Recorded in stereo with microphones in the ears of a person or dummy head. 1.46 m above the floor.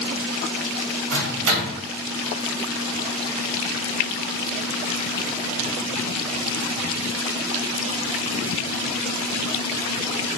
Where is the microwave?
85° right, 0.9 m.